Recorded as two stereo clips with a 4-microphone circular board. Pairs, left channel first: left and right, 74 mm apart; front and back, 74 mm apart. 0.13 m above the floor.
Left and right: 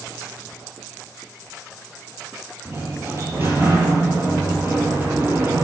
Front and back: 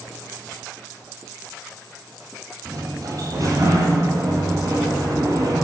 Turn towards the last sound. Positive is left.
turn(degrees=-140)